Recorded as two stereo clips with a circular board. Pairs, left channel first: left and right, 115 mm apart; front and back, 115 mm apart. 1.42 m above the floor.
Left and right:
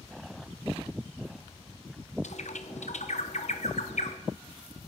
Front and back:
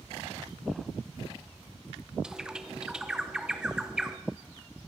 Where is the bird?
95° left, 0.9 m.